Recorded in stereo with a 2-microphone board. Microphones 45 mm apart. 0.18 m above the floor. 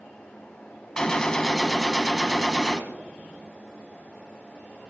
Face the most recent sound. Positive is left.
turn(degrees=15)  # may be behind; listen again after turning